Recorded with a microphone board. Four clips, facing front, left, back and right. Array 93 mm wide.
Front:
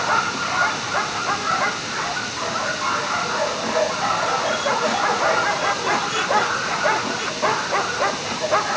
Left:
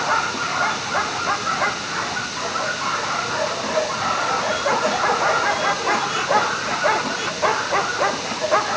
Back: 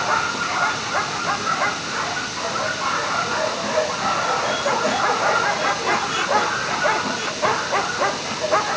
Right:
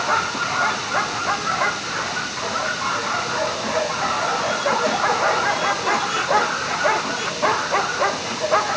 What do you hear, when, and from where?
Only background noise.